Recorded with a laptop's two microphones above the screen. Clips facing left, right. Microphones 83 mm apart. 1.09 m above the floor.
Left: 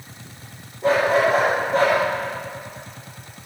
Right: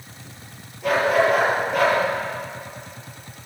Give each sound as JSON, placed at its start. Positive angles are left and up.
{"t": 0.8, "sound": "a dog barking", "side_deg": 30, "distance_m": 9.5}